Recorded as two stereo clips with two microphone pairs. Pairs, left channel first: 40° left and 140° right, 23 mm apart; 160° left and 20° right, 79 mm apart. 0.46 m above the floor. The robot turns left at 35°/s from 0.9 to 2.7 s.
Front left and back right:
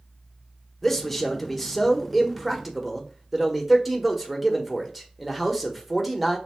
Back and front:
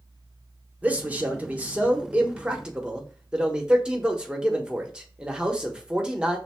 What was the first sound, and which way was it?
A man speaking, 10° right.